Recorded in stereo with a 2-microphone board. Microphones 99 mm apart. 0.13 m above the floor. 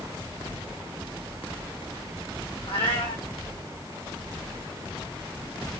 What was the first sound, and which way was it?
A cat meowing, 65° left (ahead or behind).